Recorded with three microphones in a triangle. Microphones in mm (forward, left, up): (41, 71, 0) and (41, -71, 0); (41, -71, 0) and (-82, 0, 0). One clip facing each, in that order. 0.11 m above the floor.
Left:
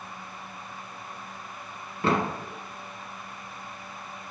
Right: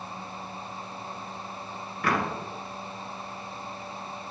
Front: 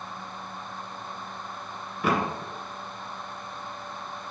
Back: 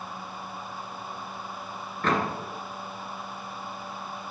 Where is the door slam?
45° left, 0.9 m.